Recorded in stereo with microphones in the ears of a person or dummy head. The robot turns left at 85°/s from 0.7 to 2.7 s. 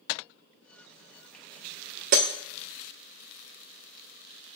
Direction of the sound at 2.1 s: 50° right (ahead or behind).